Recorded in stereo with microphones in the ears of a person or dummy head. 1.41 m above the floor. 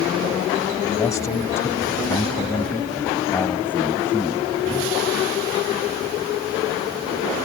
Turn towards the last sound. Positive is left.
turn(degrees=5)  # may be behind; listen again after turning